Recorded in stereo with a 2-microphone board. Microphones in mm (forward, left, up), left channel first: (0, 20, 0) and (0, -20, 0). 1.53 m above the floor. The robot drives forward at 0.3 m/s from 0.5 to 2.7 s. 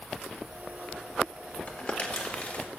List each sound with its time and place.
1.7 s crumpling: 30° left (ahead or behind), 1.9 m; by 2.6 s 25° left (ahead or behind), 2 m